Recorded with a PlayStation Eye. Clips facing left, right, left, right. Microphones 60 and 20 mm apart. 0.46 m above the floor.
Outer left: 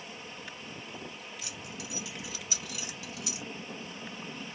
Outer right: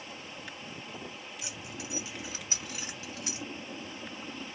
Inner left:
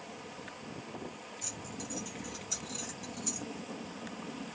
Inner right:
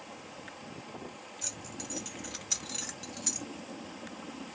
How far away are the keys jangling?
About 1.1 m.